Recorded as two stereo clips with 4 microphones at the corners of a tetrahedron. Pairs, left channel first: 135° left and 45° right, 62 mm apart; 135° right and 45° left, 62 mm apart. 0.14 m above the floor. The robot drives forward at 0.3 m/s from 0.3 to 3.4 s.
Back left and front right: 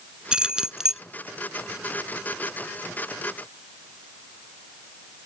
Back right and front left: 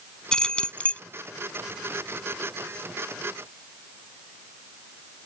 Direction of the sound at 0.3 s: 85° right.